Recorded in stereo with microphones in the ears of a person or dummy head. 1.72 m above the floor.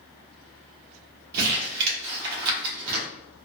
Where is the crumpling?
55° right (ahead or behind), 0.8 m.